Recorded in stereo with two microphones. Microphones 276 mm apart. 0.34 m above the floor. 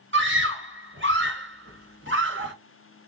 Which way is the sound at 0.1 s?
45° right (ahead or behind).